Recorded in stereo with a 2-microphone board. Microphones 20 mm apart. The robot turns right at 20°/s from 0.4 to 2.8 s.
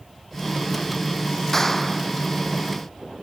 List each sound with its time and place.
1.5 s a clap: 15° left (ahead or behind); by 2.1 s 5° left (ahead or behind)